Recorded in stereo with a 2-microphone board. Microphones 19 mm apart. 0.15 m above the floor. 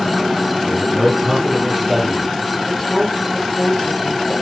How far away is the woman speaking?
About 5.5 m.